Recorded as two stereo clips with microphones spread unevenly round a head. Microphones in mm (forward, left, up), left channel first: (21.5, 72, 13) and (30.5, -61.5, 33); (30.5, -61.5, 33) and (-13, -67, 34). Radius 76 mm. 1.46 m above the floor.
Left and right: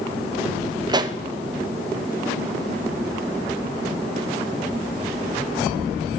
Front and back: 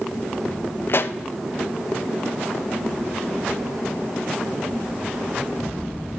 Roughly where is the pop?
Ahead right.